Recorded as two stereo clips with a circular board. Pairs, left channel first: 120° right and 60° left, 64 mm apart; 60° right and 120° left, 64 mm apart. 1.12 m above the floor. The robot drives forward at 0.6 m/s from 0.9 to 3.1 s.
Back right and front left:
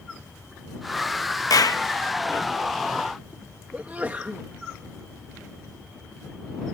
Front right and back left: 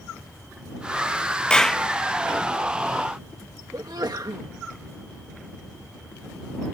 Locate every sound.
1.5 s a clap: 135° right; by 1.8 s 145° right
3.7 s a sneeze: 125° left